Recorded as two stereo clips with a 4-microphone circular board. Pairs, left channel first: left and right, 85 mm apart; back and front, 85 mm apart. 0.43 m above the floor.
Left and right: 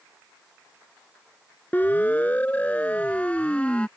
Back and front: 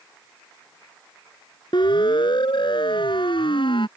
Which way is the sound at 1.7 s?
160° left.